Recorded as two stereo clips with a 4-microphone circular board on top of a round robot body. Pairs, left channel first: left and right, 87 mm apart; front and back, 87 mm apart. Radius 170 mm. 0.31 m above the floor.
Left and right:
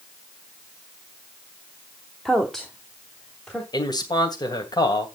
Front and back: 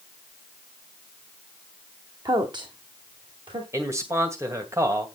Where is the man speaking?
125° left, 2.5 m.